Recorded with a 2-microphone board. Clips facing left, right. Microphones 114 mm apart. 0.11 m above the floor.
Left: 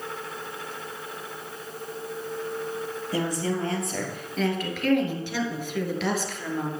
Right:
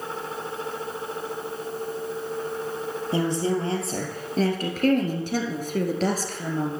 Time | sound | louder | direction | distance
3.1 | a woman speaking | right 3 dB | 25° right (ahead or behind) | 3 m